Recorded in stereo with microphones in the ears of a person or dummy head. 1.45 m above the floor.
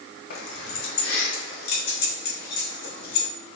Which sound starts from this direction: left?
Keys jangling, at 0.3 s.